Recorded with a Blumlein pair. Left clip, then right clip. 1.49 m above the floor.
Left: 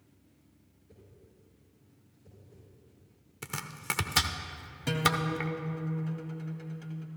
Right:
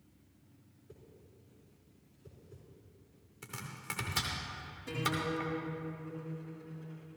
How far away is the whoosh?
About 4 m.